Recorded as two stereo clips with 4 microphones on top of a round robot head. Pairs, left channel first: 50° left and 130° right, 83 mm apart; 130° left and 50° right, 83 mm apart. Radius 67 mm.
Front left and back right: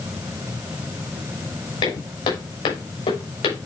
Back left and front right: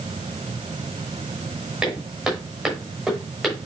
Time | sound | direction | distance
1.8 | footsteps | 35° left | 6 m